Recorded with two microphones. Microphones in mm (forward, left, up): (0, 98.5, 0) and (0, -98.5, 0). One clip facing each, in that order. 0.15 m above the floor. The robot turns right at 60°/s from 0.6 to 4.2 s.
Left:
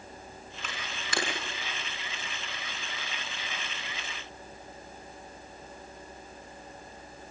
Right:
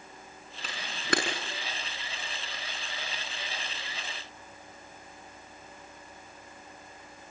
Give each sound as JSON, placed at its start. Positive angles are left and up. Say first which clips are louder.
{"t": 0.6, "sound": "a camera shutter", "louder": "right 10 dB", "side_deg": -40, "distance_m": 7.0}